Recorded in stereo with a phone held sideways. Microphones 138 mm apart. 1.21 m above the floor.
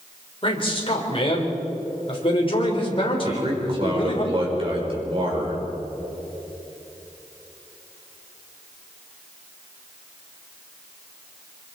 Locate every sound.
0.4 s a man speaking: 40° left (ahead or behind), 4 m
3.2 s a man speaking: 40° right (ahead or behind), 5 m